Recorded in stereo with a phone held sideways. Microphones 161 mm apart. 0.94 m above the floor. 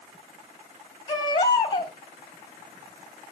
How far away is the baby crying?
About 2 m.